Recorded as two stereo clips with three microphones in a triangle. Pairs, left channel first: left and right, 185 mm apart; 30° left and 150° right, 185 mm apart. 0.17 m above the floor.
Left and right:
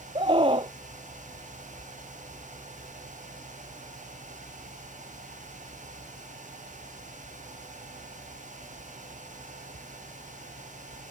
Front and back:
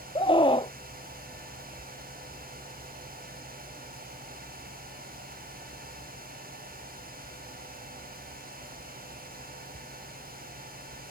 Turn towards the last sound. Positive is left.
turn(degrees=-30)